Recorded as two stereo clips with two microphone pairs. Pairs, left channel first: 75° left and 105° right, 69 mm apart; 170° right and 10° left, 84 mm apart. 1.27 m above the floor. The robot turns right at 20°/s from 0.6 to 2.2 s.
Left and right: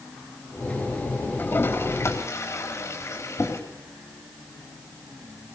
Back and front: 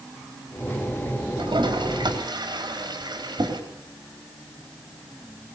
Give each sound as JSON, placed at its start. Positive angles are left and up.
{"t": 1.4, "sound": "a toilet flushing", "azimuth_deg": 15, "distance_m": 4.0}